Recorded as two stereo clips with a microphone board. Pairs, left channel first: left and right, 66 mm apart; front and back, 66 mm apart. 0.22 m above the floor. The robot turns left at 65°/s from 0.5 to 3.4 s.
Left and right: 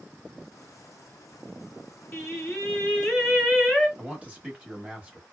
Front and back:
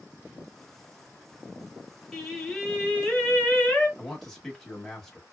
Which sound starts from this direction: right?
A man speaking, at 4.0 s.